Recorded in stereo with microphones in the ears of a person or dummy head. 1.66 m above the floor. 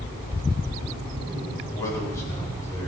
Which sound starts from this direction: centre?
A man speaking, at 1.6 s.